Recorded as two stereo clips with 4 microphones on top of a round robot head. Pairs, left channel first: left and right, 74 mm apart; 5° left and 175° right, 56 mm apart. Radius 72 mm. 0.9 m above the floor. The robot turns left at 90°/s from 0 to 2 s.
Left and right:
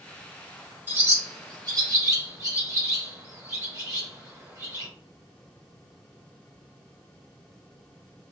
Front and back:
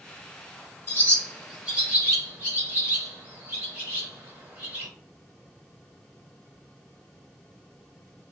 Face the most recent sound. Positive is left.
turn(degrees=-130)